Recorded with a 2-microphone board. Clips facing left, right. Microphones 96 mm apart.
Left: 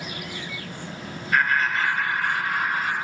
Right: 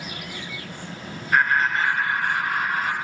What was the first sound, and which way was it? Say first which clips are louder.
Laughter: right 2 dB; 30° right (ahead or behind).